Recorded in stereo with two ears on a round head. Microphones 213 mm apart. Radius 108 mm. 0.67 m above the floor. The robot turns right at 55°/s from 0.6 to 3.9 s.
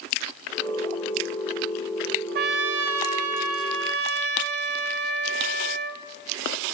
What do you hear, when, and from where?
2.4 s a trumpet: 135° right, 1.4 m; by 6.0 s 50° right, 1.4 m